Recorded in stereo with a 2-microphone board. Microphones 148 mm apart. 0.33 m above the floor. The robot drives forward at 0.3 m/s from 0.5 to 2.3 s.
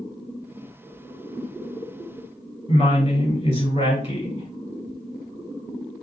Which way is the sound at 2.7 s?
40° left (ahead or behind).